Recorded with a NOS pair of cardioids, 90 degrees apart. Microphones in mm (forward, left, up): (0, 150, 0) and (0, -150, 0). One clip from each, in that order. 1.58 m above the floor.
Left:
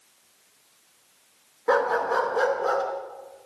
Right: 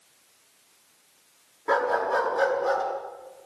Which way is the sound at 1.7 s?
25° left.